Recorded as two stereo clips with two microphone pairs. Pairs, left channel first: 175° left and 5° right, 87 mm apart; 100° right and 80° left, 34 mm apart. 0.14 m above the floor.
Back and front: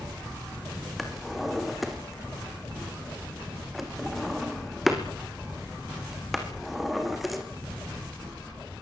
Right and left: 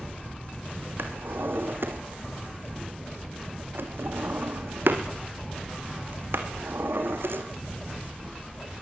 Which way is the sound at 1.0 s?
80° left.